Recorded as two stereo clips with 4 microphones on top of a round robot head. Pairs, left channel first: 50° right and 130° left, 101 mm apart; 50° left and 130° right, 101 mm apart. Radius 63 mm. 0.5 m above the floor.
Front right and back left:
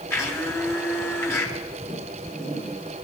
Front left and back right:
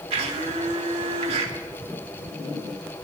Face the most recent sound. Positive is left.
turn(degrees=-115)